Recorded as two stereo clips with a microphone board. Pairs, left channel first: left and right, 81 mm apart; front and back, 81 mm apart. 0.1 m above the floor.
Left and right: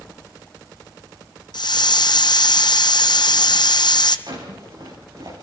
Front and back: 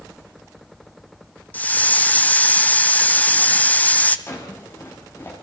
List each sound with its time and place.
1.5 s a hiss: 70° left, 0.9 m
4.3 s a drawer: 55° right, 6.5 m